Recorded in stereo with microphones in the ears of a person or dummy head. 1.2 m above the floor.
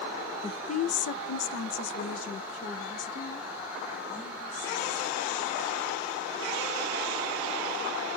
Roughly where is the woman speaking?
Left.